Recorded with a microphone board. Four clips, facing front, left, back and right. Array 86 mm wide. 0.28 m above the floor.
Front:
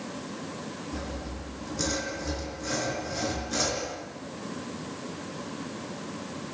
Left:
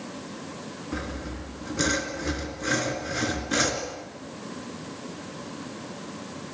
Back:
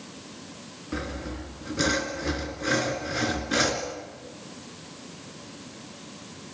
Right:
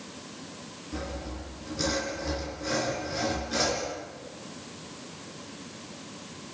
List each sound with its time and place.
0.9 s sawing: 140° left, 3 m